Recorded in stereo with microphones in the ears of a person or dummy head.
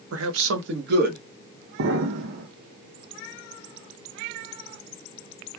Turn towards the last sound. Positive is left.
turn(degrees=-55)  # may be behind; listen again after turning